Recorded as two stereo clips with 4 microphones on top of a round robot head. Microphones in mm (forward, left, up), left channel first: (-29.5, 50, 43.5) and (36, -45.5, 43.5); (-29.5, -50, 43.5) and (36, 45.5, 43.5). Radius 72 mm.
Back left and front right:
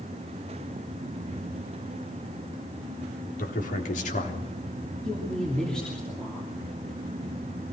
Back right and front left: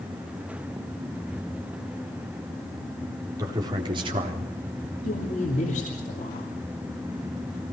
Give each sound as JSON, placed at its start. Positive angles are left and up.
{"t": 3.4, "sound": "a man speaking", "azimuth_deg": 120, "distance_m": 4.0}
{"t": 5.0, "sound": "a woman speaking", "azimuth_deg": -150, "distance_m": 3.0}